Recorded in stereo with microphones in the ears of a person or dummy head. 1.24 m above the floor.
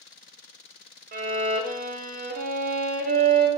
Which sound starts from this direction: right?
A violin, at 1.1 s.